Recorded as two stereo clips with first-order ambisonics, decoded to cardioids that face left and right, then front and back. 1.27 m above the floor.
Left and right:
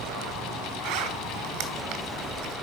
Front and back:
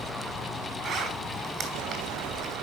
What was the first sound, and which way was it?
A zipper, 115° right.